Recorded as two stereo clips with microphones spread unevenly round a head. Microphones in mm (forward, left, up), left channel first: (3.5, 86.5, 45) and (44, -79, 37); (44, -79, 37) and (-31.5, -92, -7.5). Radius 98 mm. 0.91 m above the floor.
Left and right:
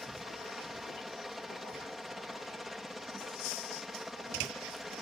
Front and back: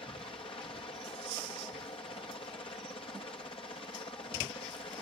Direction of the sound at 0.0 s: 10° left.